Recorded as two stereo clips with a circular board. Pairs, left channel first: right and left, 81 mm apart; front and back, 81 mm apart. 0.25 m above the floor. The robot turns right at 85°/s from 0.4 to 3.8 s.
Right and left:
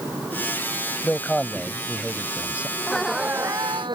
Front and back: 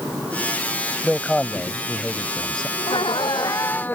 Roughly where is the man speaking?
Right.